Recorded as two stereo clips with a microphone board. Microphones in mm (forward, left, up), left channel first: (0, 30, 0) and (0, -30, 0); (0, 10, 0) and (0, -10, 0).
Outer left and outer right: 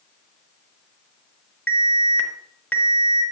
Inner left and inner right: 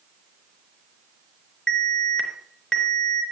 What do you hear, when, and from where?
1.7 s an alarm: 20° left (ahead or behind), 4 m